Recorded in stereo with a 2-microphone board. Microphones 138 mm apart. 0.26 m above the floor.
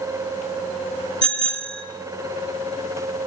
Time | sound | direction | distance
1.2 | a bicycle bell | 5° left (ahead or behind) | 2.5 m